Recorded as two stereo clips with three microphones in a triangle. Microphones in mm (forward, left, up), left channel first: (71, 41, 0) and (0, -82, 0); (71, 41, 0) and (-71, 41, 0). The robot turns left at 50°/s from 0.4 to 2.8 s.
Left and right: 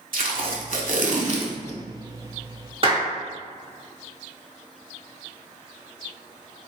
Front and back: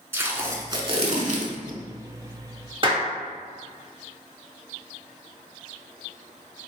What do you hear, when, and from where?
0.1 s tape being pulled: 110° right, 0.6 m; by 1.8 s 175° right, 0.6 m
2.8 s a clap: 150° right, 1.1 m